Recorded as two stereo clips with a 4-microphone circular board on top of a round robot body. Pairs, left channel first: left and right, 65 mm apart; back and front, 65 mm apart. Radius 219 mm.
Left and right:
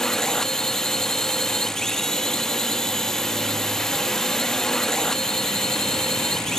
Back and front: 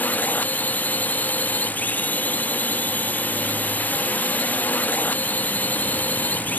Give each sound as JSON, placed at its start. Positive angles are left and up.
{"t": 0.0, "sound": "a drone", "azimuth_deg": 165}